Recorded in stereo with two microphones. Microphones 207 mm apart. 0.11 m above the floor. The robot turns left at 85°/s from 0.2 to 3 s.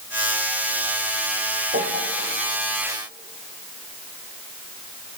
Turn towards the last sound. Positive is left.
turn(degrees=-175)